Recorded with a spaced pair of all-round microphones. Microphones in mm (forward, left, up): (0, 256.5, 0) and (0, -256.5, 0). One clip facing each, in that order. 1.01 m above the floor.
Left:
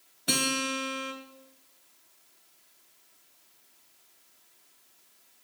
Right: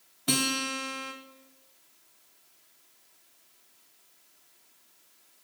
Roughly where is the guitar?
Right.